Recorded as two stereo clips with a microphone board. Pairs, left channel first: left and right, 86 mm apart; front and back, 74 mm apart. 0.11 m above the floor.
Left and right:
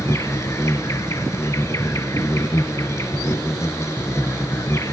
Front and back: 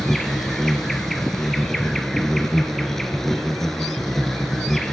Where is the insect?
80° left, 1.3 m.